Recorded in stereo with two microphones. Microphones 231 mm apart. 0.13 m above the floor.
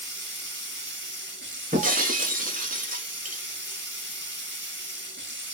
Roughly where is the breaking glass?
Right.